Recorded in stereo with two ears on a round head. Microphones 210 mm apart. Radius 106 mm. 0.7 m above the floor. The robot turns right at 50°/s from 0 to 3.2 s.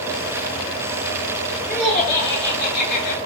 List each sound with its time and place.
1.7 s laughter: 10° right, 2 m; by 3.2 s 60° left, 2 m